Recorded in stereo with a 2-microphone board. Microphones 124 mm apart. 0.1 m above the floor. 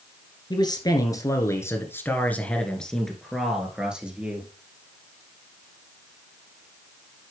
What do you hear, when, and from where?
0.5 s a man speaking: 35° left (ahead or behind), 1.9 m; by 4.5 s 10° right (ahead or behind), 2 m